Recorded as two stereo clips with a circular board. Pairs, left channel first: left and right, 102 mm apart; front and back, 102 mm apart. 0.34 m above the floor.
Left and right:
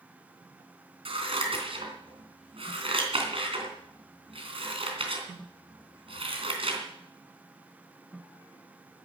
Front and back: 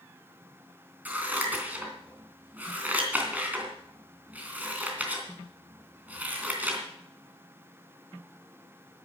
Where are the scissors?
105° right, 3 m.